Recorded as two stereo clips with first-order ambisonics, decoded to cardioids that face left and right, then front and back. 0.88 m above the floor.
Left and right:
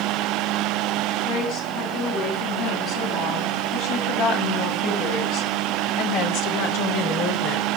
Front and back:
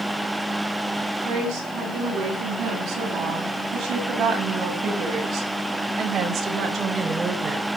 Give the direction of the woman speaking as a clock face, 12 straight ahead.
8 o'clock.